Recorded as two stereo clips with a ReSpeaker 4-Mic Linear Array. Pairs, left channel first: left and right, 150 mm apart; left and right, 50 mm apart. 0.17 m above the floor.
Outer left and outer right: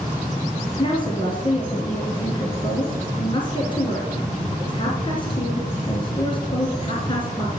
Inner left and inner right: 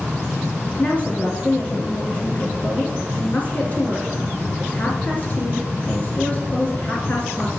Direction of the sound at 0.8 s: 30° left (ahead or behind).